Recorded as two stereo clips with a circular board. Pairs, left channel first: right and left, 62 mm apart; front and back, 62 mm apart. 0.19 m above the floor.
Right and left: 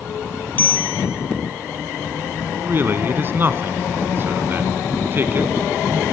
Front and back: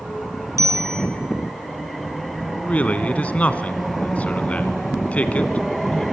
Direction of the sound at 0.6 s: 150° right.